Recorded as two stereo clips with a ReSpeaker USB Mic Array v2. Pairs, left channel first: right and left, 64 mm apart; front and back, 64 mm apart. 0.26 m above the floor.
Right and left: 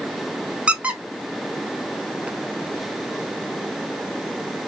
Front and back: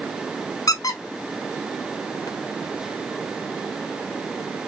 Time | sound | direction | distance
0.7 | a squeak | 20° left | 0.7 m